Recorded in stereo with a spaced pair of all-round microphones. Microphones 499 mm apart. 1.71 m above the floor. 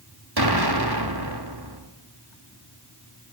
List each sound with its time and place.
0.4 s an explosion: 50° right (ahead or behind), 3.5 m